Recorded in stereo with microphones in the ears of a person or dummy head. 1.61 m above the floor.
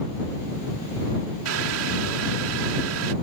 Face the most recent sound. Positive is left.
turn(degrees=-85)